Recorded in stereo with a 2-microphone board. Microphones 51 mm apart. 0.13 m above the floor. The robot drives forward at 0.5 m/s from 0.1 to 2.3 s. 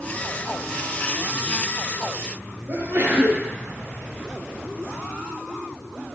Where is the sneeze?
50° right (ahead or behind), 2.5 m.